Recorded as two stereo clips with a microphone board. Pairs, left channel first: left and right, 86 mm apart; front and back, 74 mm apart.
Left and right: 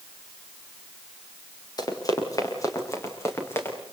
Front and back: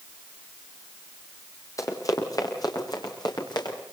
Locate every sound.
1.8 s running footsteps: 45° left, 6.5 m; by 3.8 s 25° left, 7.5 m